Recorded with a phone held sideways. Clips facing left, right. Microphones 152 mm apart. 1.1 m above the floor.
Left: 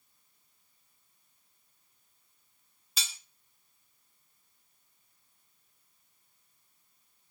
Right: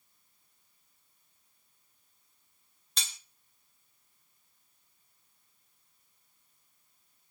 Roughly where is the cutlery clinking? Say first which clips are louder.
Left 1 dB; centre.